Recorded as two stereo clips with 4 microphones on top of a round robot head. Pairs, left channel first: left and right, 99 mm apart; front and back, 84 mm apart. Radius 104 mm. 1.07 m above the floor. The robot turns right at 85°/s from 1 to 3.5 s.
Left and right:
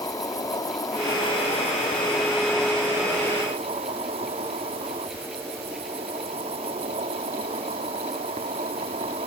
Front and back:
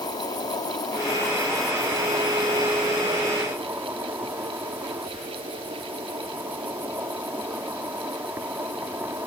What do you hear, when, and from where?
0.0 s an insect: 40° left; by 9.3 s 110° right